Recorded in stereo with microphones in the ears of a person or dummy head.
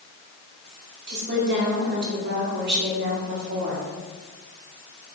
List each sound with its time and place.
1.1 s a woman speaking: 55° right (ahead or behind), 1.0 m